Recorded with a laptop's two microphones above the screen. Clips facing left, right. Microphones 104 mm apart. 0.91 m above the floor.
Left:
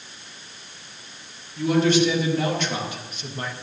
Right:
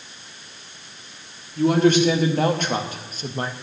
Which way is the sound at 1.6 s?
50° right (ahead or behind).